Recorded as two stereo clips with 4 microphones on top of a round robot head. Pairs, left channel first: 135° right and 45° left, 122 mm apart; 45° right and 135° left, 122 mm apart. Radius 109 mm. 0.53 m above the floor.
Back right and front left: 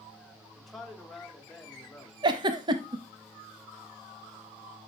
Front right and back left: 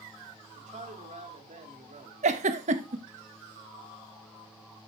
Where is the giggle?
100° left, 0.7 m.